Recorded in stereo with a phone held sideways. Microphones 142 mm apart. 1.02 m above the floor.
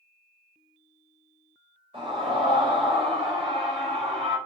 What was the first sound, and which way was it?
A scream, 40° right (ahead or behind).